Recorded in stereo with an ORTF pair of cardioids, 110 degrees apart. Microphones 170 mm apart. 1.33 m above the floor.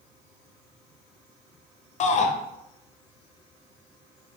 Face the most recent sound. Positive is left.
turn(degrees=45)